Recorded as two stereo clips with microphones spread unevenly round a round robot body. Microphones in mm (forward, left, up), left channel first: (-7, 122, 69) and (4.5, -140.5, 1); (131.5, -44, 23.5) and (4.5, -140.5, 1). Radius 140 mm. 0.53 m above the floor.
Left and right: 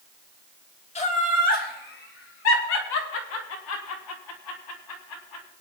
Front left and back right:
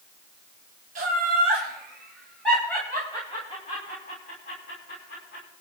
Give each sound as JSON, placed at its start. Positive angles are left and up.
{"t": 0.9, "sound": "laughter", "azimuth_deg": 165, "distance_m": 3.0}